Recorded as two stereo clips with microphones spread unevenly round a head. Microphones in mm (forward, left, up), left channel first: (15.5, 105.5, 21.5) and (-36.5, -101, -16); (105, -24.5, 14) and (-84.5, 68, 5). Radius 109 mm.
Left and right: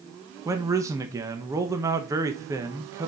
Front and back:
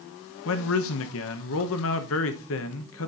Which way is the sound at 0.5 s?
35° right.